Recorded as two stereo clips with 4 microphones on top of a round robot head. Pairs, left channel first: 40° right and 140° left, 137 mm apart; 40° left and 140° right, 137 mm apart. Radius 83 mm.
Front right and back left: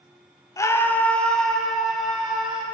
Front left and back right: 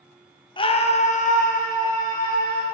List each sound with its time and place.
0.6 s a scream: 10° left, 1.2 m; by 2.6 s 55° left, 4 m